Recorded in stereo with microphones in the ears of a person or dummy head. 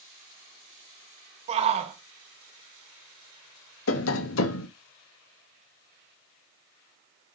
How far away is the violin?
I don't hear a violin.